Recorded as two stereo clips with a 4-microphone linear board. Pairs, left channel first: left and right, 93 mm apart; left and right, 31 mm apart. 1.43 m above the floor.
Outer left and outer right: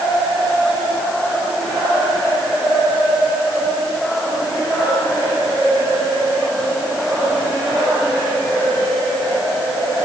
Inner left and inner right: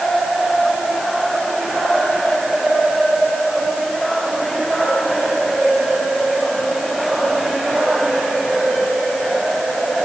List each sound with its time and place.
Only background noise.